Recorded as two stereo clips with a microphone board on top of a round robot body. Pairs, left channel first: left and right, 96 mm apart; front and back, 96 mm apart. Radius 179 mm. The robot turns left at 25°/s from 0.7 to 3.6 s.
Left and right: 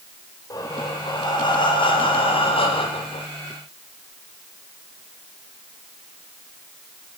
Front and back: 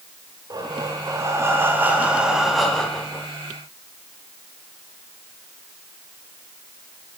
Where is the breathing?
140° left, 1.4 m; by 3.3 s 75° left, 1.4 m.